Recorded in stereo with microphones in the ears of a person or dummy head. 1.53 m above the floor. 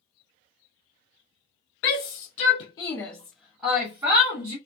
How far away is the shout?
About 0.9 m.